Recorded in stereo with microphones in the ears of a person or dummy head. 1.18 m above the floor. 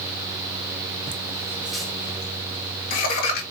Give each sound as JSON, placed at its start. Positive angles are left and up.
{"t": 1.1, "sound": "laughter", "side_deg": -30, "distance_m": 0.7}